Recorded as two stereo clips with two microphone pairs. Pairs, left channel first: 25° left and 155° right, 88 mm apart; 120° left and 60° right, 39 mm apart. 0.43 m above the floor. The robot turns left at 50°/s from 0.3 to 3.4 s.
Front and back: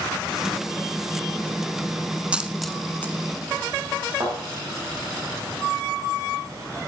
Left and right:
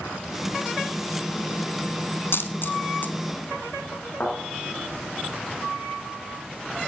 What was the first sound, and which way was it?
A dropped coin, 130° left.